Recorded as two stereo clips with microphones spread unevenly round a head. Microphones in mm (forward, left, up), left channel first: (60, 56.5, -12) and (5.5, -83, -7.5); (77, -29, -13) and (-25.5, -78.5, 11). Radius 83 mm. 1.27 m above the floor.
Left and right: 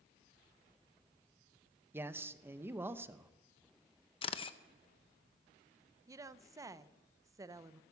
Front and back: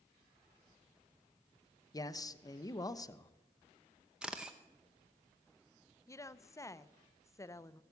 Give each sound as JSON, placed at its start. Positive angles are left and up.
{"t": 1.9, "sound": "a man speaking", "azimuth_deg": -35, "distance_m": 0.8}
{"t": 4.2, "sound": "a camera shutter", "azimuth_deg": 125, "distance_m": 0.6}
{"t": 6.1, "sound": "a woman speaking", "azimuth_deg": -40, "distance_m": 0.6}